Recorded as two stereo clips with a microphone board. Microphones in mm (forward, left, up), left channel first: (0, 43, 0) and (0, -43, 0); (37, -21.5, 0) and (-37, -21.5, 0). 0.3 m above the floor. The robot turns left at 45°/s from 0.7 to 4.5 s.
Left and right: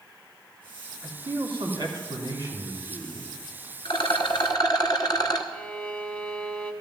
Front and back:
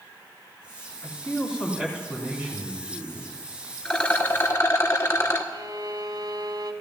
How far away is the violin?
About 0.9 m.